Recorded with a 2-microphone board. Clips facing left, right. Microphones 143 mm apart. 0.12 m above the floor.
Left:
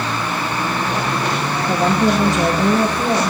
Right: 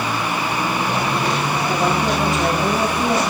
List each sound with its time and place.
1.7 s a woman speaking: 45° left (ahead or behind), 6 m; by 3.3 s 35° left (ahead or behind), 5.5 m